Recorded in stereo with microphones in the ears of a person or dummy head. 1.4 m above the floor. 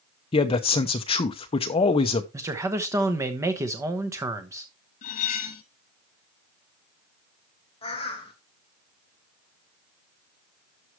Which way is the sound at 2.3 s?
15° right (ahead or behind).